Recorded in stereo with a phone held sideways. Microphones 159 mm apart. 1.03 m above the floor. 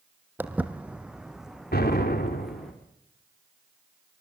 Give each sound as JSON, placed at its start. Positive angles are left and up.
{"t": 0.4, "sound": "footsteps", "side_deg": -10, "distance_m": 1.7}
{"t": 1.7, "sound": "an explosion", "side_deg": 80, "distance_m": 3.5}